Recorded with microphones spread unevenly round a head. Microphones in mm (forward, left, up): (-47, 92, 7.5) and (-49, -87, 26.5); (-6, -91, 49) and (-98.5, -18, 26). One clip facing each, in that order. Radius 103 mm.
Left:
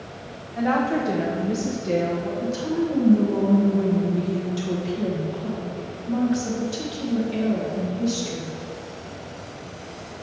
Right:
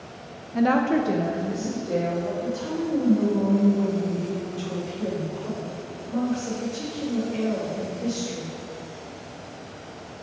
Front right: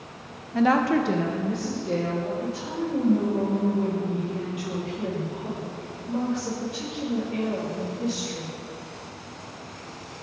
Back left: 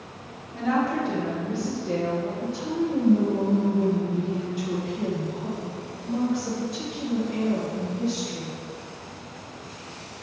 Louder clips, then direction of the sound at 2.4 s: Left 3 dB, back left 3 dB; 80° left.